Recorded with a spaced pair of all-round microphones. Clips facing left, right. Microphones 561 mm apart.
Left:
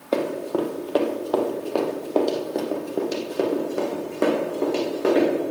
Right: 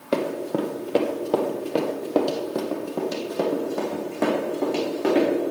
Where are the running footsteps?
35° right (ahead or behind), 1.7 m; by 5.3 s 10° right (ahead or behind), 4.5 m.